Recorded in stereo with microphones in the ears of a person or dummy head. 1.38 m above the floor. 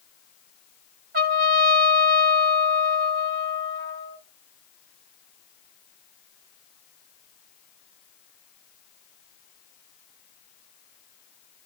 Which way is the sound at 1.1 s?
45° right (ahead or behind).